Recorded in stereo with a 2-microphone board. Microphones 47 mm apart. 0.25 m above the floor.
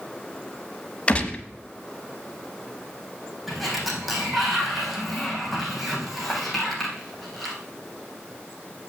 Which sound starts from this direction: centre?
A sliding door, at 3.5 s.